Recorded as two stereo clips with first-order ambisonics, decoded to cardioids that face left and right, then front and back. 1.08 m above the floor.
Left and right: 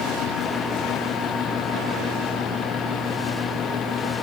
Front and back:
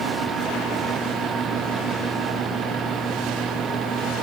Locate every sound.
Only background noise.